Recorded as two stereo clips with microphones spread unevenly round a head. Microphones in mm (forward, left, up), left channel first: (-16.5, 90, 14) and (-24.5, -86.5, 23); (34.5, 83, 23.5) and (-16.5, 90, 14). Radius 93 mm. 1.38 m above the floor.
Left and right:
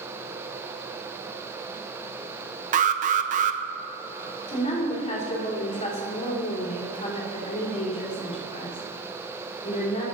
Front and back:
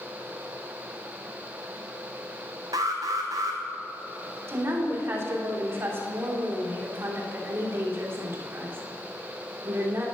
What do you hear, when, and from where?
2.7 s an alarm: 135° right, 0.5 m
4.5 s a woman speaking: 140° left, 3.5 m